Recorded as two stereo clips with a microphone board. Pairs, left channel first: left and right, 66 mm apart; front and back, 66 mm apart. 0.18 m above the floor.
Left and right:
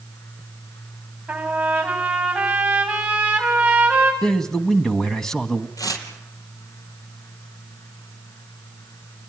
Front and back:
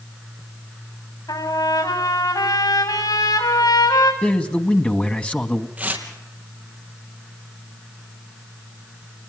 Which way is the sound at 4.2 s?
25° left.